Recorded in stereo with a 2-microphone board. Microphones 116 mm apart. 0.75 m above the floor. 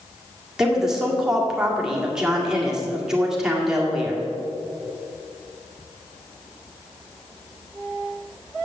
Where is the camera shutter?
No camera shutter in this recording.